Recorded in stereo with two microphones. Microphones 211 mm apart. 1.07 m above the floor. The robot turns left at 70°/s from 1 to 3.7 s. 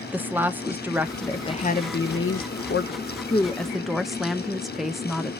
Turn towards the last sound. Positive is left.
turn(degrees=0)